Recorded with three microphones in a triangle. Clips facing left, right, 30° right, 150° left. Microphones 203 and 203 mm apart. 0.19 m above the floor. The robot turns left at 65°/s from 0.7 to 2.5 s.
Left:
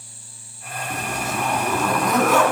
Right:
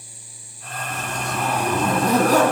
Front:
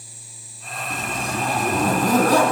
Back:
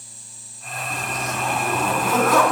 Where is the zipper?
30° left, 1.9 m; by 2.5 s 75° right, 1.9 m.